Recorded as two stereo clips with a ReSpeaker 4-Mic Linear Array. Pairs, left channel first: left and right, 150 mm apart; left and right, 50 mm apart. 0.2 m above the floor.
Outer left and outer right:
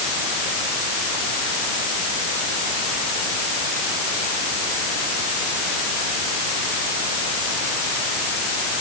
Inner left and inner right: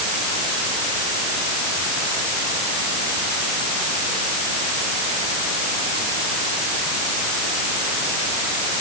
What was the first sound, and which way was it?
Only background noise.